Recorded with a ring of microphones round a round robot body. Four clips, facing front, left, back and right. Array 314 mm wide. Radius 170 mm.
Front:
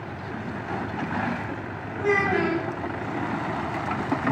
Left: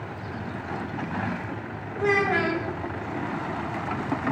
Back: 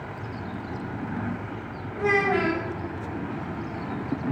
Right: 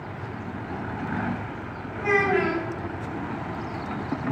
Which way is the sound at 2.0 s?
95° left.